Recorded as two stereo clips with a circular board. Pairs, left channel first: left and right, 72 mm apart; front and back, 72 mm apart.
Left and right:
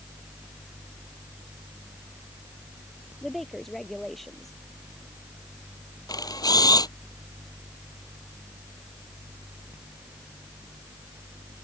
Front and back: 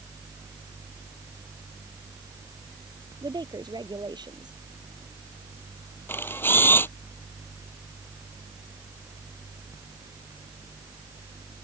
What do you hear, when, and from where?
3.2 s a woman speaking: 175° left
6.1 s a camera shutter: 60° left